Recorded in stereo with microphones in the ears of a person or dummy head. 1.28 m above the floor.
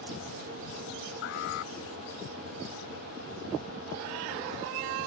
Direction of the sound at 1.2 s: 55° left (ahead or behind).